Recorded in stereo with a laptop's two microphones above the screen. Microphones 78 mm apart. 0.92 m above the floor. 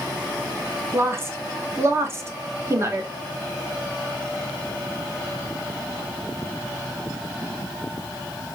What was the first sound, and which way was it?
A woman speaking, 30° right (ahead or behind).